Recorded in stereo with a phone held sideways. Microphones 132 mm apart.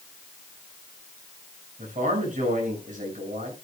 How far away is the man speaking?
About 6.5 m.